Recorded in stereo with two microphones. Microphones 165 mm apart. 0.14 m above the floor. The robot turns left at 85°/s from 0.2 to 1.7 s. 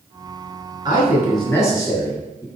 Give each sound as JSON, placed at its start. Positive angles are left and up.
{"t": 0.8, "sound": "a man speaking", "azimuth_deg": -140, "distance_m": 1.8}